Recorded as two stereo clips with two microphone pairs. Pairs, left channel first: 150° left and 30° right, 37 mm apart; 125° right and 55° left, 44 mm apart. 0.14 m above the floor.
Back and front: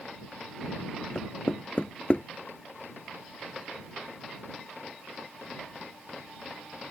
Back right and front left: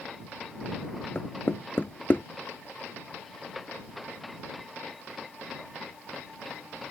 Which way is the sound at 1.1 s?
160° right.